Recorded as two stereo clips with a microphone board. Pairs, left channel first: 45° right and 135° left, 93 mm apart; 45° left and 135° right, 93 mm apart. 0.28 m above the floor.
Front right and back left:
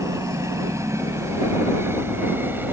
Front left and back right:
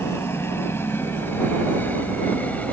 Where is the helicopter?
95° left; by 2.7 s 100° left.